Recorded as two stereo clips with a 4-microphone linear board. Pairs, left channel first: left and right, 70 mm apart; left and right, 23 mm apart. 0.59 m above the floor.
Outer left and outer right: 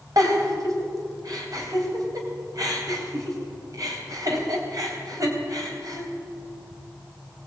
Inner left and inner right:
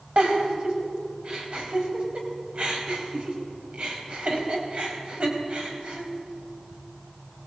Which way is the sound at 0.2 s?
55° right (ahead or behind).